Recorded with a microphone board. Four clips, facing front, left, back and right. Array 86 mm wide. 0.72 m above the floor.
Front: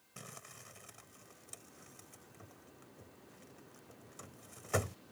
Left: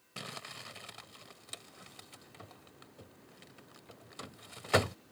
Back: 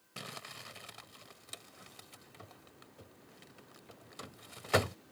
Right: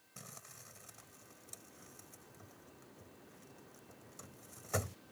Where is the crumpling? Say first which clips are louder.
Left 10 dB, back 6 dB; 125° left.